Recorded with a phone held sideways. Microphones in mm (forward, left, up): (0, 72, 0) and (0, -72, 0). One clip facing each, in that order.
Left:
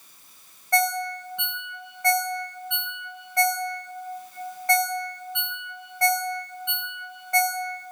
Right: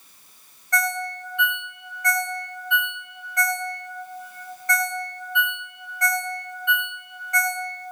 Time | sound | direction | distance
0.7 | a ringtone | 30° left (ahead or behind) | 0.5 m